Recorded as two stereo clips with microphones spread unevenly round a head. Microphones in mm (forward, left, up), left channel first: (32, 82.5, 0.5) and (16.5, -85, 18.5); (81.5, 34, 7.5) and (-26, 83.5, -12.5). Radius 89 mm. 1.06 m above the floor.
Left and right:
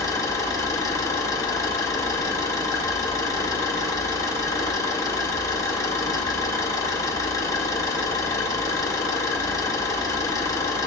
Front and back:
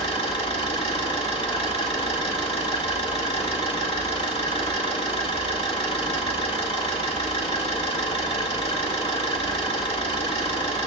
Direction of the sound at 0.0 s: 10° left.